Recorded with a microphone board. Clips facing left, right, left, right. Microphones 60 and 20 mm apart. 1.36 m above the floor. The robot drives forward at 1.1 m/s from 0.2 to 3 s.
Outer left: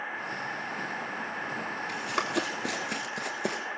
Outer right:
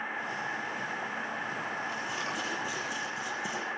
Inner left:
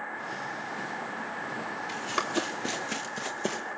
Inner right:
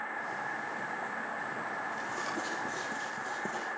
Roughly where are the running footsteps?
Left.